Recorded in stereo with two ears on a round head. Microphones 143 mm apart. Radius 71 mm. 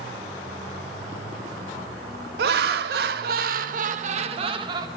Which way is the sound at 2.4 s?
70° right (ahead or behind).